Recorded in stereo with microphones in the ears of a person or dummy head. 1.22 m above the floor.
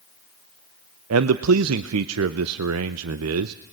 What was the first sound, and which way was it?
A man speaking, 80° right.